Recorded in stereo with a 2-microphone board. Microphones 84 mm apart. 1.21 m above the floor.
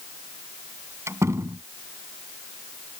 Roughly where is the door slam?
Right.